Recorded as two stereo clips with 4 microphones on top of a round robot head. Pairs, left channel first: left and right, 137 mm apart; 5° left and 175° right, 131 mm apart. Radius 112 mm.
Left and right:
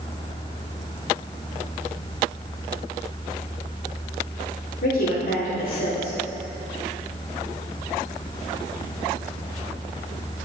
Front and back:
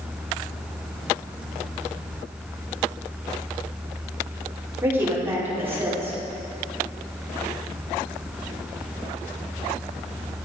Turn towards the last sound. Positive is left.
turn(degrees=110)